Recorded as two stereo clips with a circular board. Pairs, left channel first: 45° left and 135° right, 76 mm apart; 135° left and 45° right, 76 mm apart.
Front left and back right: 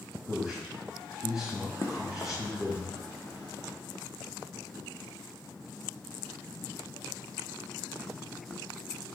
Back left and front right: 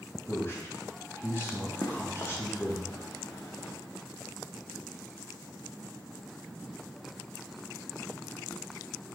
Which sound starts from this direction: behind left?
A man speaking, at 0.3 s.